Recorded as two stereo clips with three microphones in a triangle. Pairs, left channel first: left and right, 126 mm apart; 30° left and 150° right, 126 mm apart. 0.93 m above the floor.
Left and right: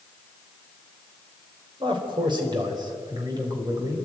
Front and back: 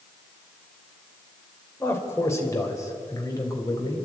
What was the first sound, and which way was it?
A man speaking, 40° right.